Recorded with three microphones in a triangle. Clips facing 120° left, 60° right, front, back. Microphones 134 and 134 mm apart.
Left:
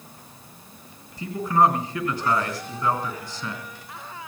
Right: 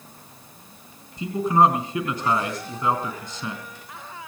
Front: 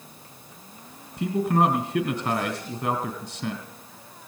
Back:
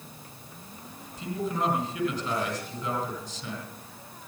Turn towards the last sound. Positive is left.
turn(degrees=10)